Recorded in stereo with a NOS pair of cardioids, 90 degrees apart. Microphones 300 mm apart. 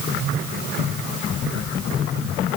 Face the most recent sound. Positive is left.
No sound to turn to.